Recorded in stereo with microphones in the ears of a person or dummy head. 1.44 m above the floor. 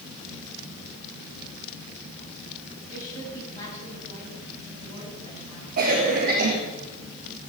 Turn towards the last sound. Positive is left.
turn(degrees=-45)  # may be behind; listen again after turning